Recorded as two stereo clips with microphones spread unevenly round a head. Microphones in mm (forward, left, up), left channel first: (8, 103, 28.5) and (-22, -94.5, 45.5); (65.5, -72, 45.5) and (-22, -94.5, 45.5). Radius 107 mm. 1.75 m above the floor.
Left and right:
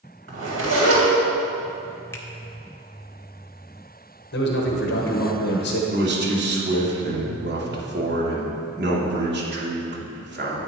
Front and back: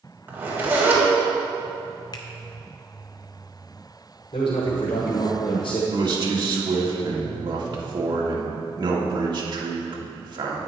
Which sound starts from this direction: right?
A zipper, at 0.3 s.